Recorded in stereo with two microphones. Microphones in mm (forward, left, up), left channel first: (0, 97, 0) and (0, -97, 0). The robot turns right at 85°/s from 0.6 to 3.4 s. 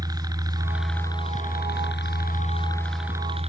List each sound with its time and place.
0.0 s a helicopter: 20° right; by 3.5 s 145° right